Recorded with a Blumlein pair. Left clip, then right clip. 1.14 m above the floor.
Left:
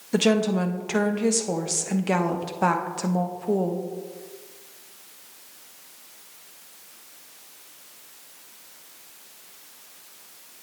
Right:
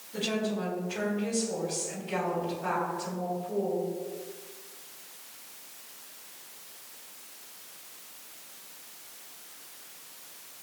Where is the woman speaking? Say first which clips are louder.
Left 9 dB; 45° left, 1.0 m.